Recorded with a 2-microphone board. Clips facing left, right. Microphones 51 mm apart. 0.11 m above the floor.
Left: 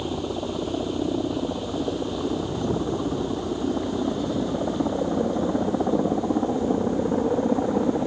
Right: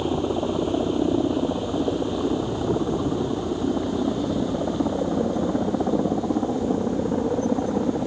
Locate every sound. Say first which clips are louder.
0.0 s a helicopter: right 4 dB; 15° right (ahead or behind); by 8.1 s 5° left (ahead or behind)